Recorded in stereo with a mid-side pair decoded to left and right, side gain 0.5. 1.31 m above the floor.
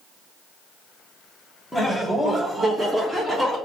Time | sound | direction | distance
1.7 | laughter | 5° right | 1.1 m